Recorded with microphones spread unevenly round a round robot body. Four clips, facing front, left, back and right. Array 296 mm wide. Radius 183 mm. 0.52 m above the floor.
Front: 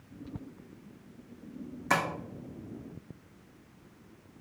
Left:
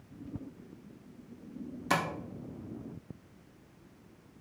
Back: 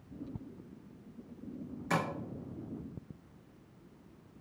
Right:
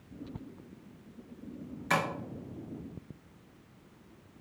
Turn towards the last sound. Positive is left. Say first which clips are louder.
# right 1 dB, front 4 dB
turn(degrees=75)